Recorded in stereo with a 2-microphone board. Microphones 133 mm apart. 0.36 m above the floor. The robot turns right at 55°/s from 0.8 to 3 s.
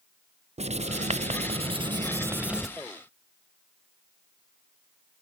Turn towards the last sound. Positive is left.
turn(degrees=15)